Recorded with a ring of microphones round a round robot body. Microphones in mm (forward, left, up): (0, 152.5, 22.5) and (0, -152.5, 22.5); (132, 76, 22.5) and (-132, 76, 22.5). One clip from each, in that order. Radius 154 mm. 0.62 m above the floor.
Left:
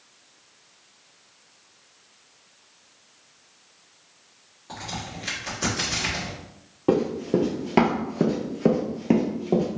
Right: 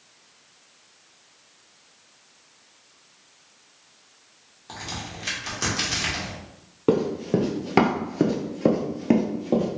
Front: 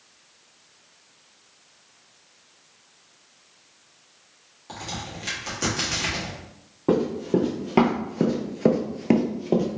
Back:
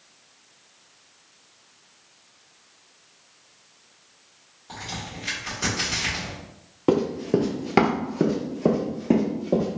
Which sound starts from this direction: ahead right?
A crack, at 4.7 s.